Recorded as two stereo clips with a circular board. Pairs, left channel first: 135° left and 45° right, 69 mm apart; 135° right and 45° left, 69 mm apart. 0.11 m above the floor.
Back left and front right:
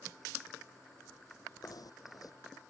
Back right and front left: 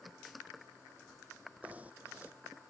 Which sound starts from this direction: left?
Knocking, at 1.6 s.